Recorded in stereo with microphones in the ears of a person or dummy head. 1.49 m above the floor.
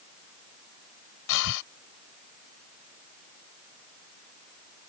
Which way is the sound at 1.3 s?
65° left (ahead or behind).